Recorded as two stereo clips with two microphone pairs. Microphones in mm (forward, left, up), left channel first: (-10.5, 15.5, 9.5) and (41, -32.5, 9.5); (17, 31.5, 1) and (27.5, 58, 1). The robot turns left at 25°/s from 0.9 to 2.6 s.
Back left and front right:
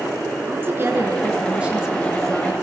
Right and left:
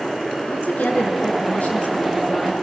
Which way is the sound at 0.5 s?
100° right.